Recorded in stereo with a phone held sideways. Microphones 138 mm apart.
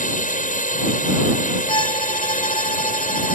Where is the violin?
35° left (ahead or behind).